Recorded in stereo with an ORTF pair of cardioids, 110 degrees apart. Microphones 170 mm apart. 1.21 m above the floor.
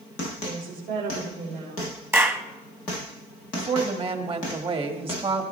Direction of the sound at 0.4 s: 65° right.